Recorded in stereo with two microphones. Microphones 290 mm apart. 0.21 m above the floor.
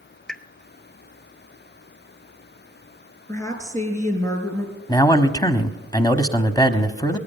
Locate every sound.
0.3 s a pop: centre (ahead or behind), 0.8 m
3.3 s a woman speaking: 10° left (ahead or behind), 3 m
4.9 s a man speaking: 15° left (ahead or behind), 1.0 m